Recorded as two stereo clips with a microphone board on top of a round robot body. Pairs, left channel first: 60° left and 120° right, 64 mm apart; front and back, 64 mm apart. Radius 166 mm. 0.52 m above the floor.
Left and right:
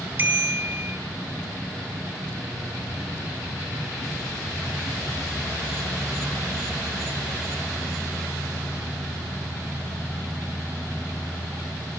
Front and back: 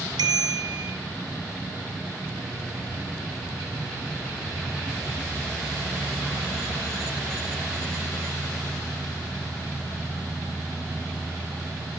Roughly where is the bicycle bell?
Behind.